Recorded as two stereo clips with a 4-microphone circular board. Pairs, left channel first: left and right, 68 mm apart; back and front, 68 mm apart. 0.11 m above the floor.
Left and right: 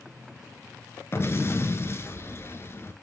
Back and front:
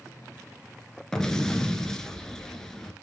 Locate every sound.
1.1 s an explosion: 100° left, 1.2 m